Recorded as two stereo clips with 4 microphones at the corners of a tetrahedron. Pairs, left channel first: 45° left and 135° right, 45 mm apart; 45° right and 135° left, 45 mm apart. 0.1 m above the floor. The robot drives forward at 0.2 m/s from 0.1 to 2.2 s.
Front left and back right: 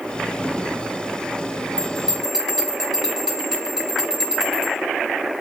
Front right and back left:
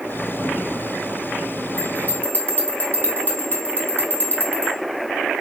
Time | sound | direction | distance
1.8 | a bell | 60° right | 1.8 m